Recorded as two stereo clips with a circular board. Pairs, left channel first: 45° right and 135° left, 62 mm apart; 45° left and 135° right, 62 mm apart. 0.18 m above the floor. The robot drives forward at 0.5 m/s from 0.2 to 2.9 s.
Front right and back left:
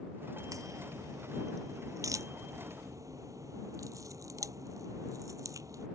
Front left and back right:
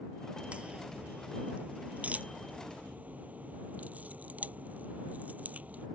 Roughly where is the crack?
Behind left.